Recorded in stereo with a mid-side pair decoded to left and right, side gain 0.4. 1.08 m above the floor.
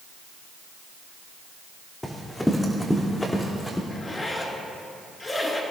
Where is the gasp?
I don't hear a gasp.